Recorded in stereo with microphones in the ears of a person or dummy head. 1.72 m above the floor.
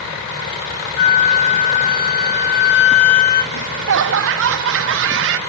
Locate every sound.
1.0 s a flute: 50° left (ahead or behind), 2 m
3.5 s laughter: 65° right (ahead or behind), 1.2 m